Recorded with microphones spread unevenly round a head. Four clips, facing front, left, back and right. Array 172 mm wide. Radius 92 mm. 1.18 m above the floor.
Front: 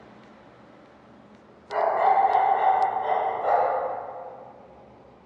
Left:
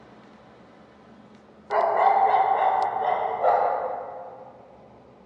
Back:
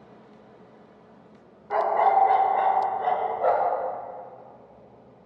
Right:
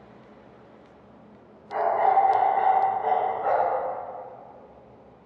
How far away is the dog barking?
About 1.1 m.